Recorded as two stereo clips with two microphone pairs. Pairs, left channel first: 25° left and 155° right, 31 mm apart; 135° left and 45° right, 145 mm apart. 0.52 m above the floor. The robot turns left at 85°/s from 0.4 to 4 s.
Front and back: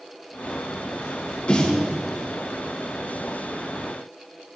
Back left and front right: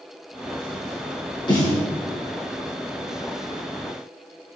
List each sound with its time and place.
1.5 s a snare drum: 80° left, 3 m; by 1.8 s 50° left, 3 m